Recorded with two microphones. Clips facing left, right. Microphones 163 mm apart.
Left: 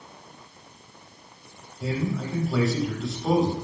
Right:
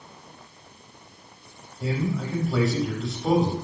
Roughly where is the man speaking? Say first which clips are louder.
Right 1 dB; centre.